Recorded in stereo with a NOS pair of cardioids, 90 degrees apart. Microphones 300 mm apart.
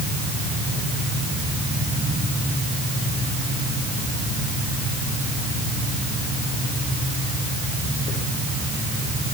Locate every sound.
Only background noise.